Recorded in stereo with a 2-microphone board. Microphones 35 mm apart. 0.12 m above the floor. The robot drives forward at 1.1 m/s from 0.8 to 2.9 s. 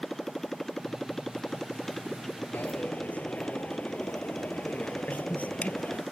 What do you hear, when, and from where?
0.0 s a motorcycle: 15° left (ahead or behind); by 6.1 s 10° left (ahead or behind)
2.5 s a dropped coin: 65° left (ahead or behind); by 6.0 s 50° left (ahead or behind)